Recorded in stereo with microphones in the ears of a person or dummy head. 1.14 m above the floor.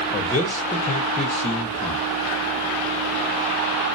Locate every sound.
0.1 s a man speaking: 25° left (ahead or behind), 0.5 m